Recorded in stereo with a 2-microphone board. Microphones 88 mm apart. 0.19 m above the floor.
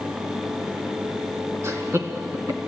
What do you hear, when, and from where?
1.6 s laughter: 35° right (ahead or behind), 2.0 m